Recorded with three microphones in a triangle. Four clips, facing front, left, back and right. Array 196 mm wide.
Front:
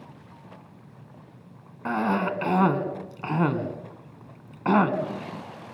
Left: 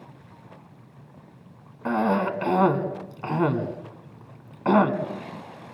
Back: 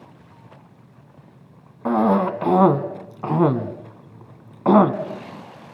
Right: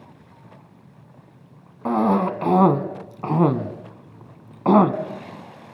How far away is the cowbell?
No cowbell in this recording.